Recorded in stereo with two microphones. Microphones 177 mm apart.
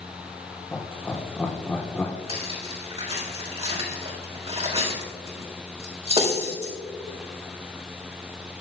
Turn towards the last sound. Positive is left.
turn(degrees=-35)  # may be behind; listen again after turning